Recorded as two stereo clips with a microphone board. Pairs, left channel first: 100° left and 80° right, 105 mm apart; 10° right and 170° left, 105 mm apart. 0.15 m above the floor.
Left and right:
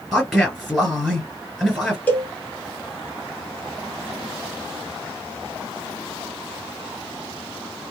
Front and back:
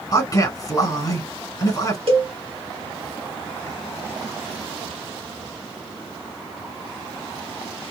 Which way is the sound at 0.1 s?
10° left.